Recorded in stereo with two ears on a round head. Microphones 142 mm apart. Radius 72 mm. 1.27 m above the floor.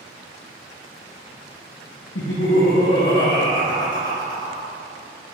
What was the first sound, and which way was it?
Laughter, 85° left.